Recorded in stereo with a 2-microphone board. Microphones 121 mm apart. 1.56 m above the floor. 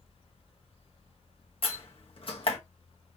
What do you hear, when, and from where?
1.6 s a door slam: 50° left (ahead or behind), 1.2 m